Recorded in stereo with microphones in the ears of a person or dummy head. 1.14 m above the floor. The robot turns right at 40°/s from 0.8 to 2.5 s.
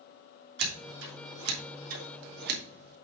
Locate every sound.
0.6 s scissors: 55° right (ahead or behind), 1.9 m